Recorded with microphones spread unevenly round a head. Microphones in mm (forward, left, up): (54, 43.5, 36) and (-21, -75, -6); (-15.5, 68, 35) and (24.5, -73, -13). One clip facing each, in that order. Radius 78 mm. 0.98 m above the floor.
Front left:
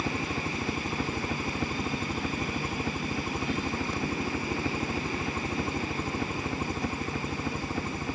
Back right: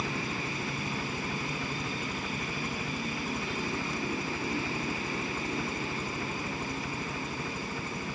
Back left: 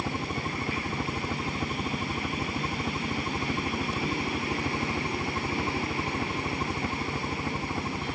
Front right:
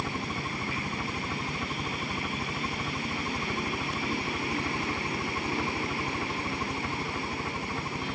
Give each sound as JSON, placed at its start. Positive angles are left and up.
{"t": 0.0, "sound": "a helicopter", "azimuth_deg": 40}